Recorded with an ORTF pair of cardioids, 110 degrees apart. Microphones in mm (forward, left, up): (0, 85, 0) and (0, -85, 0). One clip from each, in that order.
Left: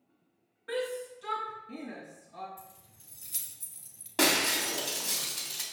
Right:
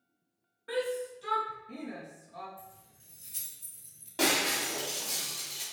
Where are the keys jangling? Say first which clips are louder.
Even; 45° left, 2.5 m.